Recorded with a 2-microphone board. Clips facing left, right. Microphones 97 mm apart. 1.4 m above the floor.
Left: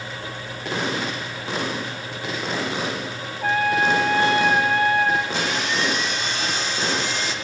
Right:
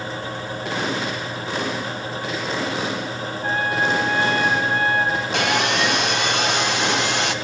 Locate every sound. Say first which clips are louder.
3.4 s a trumpet: left 3 dB; 90° left, 0.8 m
5.3 s sawing: right 4 dB; 70° right (ahead or behind), 0.7 m